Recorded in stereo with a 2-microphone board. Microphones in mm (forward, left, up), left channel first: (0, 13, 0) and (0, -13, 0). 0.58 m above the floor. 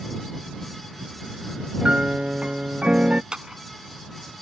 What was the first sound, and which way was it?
A piano, 50° right (ahead or behind).